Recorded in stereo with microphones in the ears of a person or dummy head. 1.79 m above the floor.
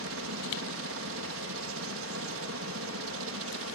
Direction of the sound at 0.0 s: 70° right (ahead or behind).